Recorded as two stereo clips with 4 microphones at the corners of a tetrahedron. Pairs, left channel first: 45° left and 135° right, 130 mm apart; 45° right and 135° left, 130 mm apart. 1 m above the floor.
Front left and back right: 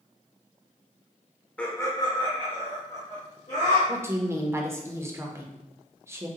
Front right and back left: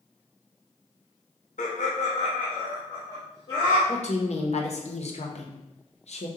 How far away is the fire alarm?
I don't hear a fire alarm.